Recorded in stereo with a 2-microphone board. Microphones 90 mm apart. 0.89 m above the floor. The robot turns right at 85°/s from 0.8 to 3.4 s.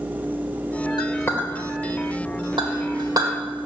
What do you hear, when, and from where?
1.0 s a clink: 60° left (ahead or behind), 1.8 m; by 3.4 s 35° right (ahead or behind), 1.8 m